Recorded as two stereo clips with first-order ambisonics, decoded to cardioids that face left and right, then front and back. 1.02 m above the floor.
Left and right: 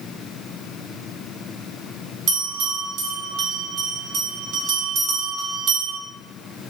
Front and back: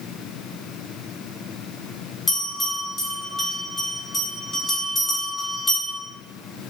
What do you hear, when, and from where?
2.3 s a bell: 70° right, 1.4 m